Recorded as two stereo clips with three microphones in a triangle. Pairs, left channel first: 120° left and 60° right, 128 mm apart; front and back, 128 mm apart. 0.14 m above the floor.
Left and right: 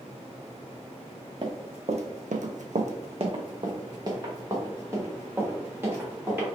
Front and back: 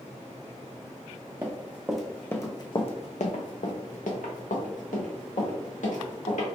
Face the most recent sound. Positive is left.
turn(degrees=15)